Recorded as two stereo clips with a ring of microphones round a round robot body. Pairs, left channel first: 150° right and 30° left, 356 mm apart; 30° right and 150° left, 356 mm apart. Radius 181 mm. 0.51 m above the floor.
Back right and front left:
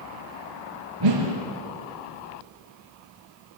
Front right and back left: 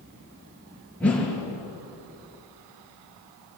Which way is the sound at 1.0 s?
55° left.